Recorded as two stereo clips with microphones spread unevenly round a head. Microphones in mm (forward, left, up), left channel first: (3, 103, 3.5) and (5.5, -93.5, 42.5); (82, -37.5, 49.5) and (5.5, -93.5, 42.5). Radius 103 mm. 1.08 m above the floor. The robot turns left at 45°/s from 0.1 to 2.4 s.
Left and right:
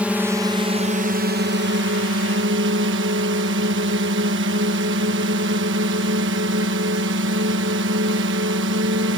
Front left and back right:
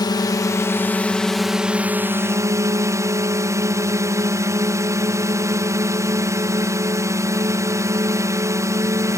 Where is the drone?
Straight ahead; by 9.2 s 100° right.